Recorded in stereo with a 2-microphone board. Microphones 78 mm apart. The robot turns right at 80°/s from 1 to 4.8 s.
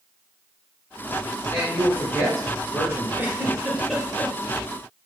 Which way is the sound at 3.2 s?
25° right (ahead or behind).